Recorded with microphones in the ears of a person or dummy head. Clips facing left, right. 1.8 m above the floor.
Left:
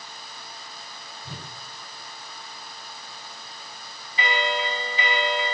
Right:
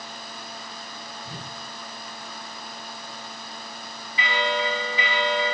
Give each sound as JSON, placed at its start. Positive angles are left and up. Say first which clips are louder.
{"t": 1.2, "sound": "a whoosh", "louder": "left 1 dB", "side_deg": 65, "distance_m": 6.5}
{"t": 4.2, "sound": "a bell", "louder": "right 1 dB", "side_deg": 40, "distance_m": 1.4}